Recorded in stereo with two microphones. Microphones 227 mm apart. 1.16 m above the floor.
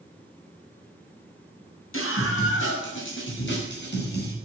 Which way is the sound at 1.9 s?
65° left (ahead or behind).